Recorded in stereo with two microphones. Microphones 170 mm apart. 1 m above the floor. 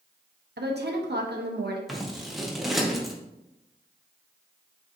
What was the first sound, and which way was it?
A woman speaking, 80° right.